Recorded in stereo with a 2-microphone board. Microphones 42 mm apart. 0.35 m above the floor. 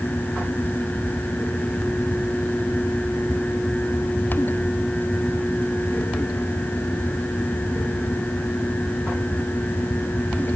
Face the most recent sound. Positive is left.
No sound to turn to.